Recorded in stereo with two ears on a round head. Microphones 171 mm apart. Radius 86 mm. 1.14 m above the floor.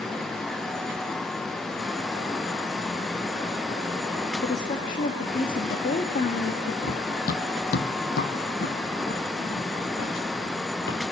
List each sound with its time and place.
4.4 s a woman speaking: 40° left (ahead or behind), 1.8 m
6.8 s running footsteps: 40° left (ahead or behind), 1.4 m; by 11.1 s 65° left (ahead or behind), 4 m